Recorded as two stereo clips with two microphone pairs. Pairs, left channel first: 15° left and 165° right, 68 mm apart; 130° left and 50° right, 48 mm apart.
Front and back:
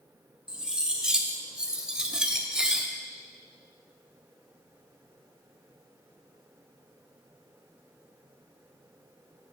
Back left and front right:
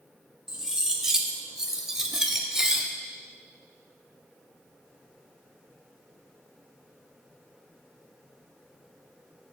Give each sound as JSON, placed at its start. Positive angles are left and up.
{"t": 0.5, "sound": "cutlery clinking", "azimuth_deg": -105, "distance_m": 0.6}